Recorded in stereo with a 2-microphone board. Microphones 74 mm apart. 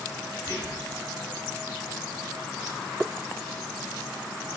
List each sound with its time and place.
0.4 s whispering: 30° right (ahead or behind), 6 m